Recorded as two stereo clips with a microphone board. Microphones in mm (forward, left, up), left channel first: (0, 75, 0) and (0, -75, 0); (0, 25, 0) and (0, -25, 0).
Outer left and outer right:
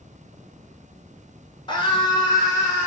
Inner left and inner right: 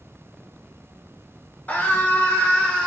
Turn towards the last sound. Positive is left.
turn(degrees=20)  # may be behind; listen again after turning